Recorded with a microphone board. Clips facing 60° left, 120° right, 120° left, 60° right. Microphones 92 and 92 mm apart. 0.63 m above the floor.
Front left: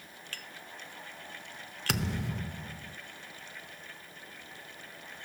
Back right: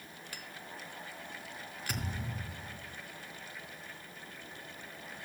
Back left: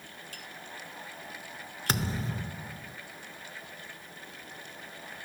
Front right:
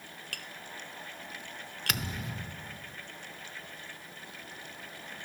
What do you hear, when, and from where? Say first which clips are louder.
0.3 s tapping: even, even; 40° right, 0.9 m
1.9 s a thud: front left 7 dB, back left 5 dB; 65° left, 0.6 m